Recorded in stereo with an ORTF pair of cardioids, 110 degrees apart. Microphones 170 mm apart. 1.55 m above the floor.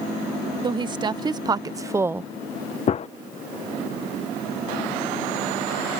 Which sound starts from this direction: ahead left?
A gunshot, at 2.9 s.